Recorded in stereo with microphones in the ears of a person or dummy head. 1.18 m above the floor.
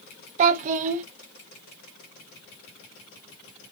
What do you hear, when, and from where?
0.4 s a child speaking: 40° right (ahead or behind), 0.6 m